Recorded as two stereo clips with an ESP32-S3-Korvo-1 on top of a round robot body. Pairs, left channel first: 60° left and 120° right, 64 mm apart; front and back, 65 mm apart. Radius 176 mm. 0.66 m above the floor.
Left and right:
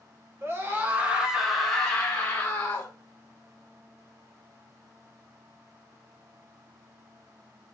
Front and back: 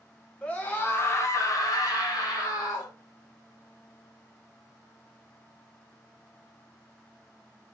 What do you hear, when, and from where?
0.4 s a scream: 70° right, 1.5 m; by 2.9 s 5° left, 1.9 m